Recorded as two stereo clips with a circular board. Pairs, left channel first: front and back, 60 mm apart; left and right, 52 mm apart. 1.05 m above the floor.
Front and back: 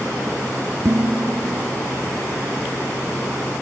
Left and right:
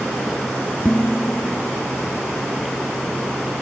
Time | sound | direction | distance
0.8 | dishes clattering | 155° left | 1.5 m